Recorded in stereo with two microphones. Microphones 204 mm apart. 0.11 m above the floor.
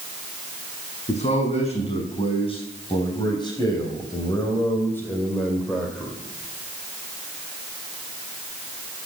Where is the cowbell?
I don't hear a cowbell.